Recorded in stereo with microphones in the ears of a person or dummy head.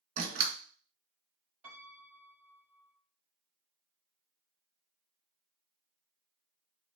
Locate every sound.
0.2 s a door slam: 40° right (ahead or behind), 2.5 m
1.6 s a piano: 20° right (ahead or behind), 5 m